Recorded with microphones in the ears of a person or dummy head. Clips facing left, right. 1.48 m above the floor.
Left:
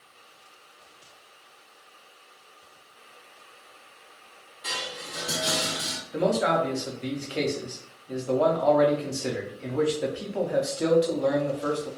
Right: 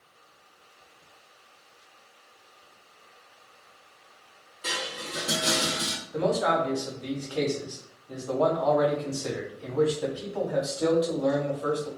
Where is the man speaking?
30° left (ahead or behind), 0.6 m.